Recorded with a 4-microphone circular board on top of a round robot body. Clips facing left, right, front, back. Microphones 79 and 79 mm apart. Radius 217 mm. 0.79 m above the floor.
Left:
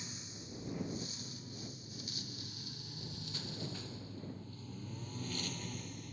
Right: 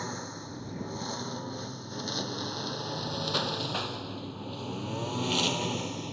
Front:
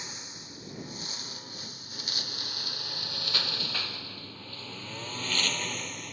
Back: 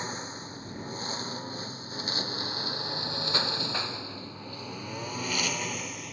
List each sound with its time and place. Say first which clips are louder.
0.0 s a lawn mower: right 13 dB, back 9 dB; 130° right; by 6.1 s 95° right